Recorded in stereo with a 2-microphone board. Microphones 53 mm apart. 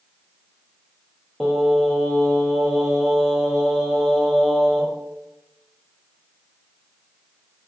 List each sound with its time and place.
1.4 s singing: centre (ahead or behind), 0.8 m